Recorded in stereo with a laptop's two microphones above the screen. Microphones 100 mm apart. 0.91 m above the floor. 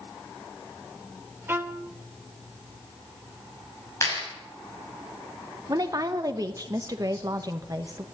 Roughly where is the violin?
Right.